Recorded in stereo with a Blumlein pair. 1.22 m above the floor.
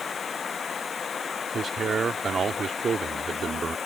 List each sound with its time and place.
0.0 s running water: 20° left
1.5 s a man speaking: 20° right